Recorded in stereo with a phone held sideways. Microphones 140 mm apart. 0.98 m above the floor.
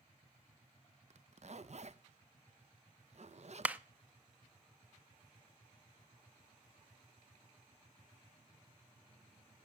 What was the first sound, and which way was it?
A zipper, 50° right (ahead or behind).